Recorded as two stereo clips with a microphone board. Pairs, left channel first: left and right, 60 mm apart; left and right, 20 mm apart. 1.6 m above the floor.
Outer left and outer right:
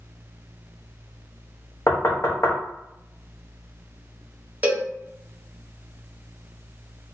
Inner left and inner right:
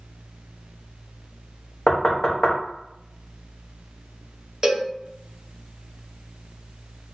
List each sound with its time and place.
1.9 s knocking: 45° left (ahead or behind), 0.7 m
4.6 s a cowbell: 25° right (ahead or behind), 0.7 m